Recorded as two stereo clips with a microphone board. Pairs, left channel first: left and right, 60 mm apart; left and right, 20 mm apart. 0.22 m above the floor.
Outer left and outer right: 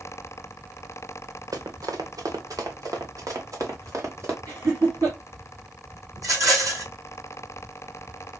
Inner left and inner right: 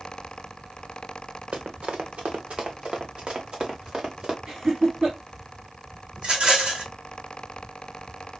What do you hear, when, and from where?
1.5 s running footsteps: 80° right, 1.1 m; by 4.4 s 50° right (ahead or behind), 2 m
4.5 s laughter: 60° right (ahead or behind), 2.5 m
6.2 s a rattle: 60° right (ahead or behind), 3 m